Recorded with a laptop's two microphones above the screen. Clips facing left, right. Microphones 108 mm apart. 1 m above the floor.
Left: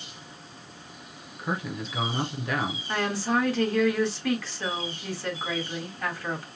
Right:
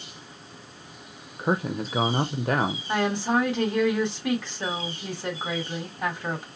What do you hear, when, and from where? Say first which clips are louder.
1.4 s a man speaking: right 6 dB; 40° right (ahead or behind), 0.7 m
2.9 s a woman speaking: right 2 dB; 20° right (ahead or behind), 2 m